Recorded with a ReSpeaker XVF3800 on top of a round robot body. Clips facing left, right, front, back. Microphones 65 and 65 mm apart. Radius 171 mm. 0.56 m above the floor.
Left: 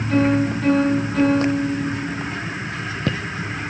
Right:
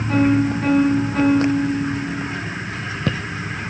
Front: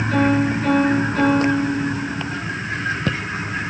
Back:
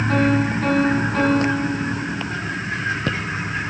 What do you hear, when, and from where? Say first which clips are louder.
0.1 s a piano: right 1 dB, front 2 dB; 145° right, 3.5 m